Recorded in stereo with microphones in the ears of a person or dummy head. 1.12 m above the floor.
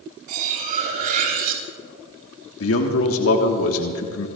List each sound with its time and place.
0.3 s cutlery clinking: 45° right (ahead or behind), 3.5 m
2.6 s a man speaking: 70° left (ahead or behind), 1.4 m